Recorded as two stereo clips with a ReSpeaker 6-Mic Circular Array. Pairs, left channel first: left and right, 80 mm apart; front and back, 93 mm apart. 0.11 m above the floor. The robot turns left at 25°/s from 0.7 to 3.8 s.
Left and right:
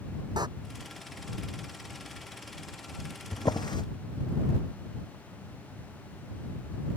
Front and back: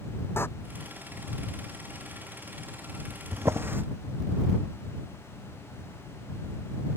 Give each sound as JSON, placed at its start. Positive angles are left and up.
{"t": 0.4, "sound": "a door slam", "azimuth_deg": -65}
{"t": 3.3, "sound": "a drawer", "azimuth_deg": 125}